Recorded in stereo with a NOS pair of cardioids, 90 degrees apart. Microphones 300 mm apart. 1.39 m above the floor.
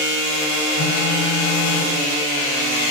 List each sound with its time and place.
0.8 s a phone buzzing: 50° left, 4 m